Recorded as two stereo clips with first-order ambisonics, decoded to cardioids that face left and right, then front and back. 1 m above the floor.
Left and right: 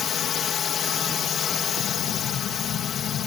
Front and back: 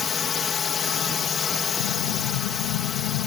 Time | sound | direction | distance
0.0 | a drone | 50° left | ?
1.8 | an explosion | 25° left | ?